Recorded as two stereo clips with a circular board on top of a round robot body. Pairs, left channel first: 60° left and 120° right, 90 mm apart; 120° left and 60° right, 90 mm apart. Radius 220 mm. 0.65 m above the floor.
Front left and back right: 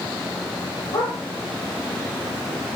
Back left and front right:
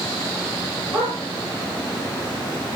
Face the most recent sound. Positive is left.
turn(degrees=40)